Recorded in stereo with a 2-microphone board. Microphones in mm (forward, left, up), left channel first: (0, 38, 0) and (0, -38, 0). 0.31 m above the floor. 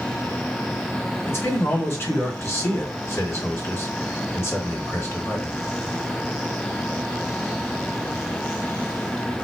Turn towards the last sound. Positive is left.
turn(degrees=35)  # may be behind; listen again after turning